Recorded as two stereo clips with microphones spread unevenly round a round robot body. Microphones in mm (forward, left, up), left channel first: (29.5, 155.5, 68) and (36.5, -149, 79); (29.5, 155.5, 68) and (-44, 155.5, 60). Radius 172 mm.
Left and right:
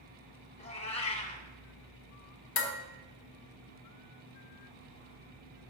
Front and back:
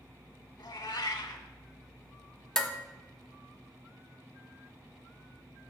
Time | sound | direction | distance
0.6 | a cat meowing | 20° left | 1.0 m
2.6 | dishes clattering | 85° left | 1.1 m